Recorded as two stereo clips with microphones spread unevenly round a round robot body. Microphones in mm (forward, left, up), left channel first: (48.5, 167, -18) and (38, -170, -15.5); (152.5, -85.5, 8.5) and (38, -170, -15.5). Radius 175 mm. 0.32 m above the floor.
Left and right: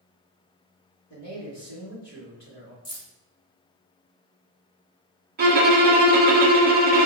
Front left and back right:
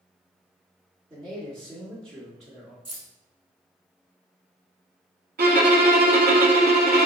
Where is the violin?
155° right, 0.5 m.